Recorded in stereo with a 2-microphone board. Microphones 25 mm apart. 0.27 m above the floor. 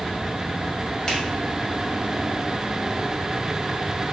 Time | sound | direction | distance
1.1 | a finger snap | 25° left (ahead or behind) | 1.3 m